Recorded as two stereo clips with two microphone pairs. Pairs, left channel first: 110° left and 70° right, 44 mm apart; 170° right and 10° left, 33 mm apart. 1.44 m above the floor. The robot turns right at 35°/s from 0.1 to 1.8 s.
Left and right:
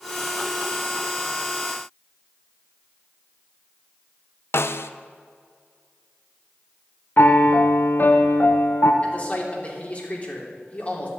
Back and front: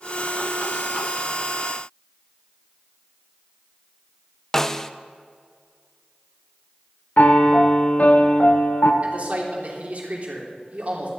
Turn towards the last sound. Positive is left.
turn(degrees=50)